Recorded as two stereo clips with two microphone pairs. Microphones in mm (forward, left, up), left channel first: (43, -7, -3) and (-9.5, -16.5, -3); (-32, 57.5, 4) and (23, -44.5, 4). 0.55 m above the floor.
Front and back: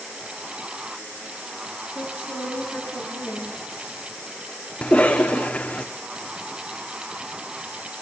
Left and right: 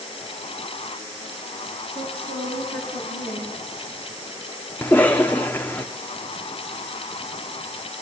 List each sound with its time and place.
1.9 s a woman speaking: 55° right, 9 m; by 3.9 s 40° right, 10.5 m
4.8 s a cough: 55° left, 0.7 m